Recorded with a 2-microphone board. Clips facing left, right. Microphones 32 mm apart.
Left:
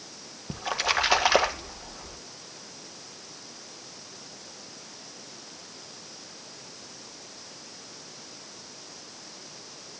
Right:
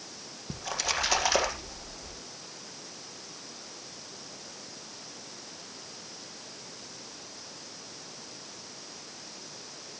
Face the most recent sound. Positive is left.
turn(degrees=30)  # may be behind; listen again after turning